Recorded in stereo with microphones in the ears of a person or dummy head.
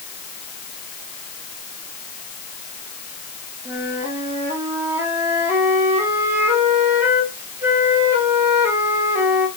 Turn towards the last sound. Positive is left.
turn(degrees=-10)  # may be behind; listen again after turning